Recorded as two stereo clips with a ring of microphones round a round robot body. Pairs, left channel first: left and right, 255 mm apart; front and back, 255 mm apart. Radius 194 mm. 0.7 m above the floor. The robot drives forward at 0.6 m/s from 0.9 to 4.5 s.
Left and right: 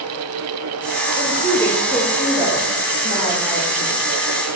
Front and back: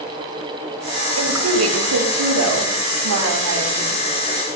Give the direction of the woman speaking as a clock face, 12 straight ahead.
5 o'clock.